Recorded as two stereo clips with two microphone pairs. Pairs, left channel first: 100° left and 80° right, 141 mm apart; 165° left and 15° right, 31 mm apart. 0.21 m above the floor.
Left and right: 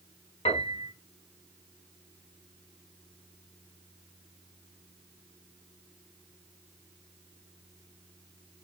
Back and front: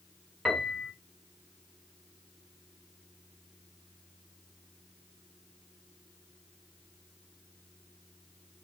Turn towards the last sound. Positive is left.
turn(degrees=65)